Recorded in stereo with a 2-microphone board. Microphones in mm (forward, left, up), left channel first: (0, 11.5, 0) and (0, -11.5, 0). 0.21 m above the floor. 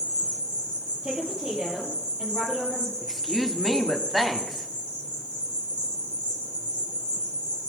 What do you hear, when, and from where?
0.0 s an insect: 80° right, 4 m
1.0 s a woman speaking: 60° right (ahead or behind), 5.5 m
3.0 s a woman speaking: 5° right (ahead or behind), 1.4 m